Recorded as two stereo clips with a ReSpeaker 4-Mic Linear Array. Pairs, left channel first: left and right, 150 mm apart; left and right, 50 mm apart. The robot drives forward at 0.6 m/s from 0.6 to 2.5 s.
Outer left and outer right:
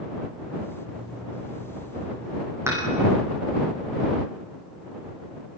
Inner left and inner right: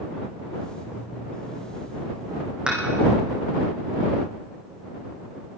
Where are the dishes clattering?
15° right (ahead or behind), 4.5 m.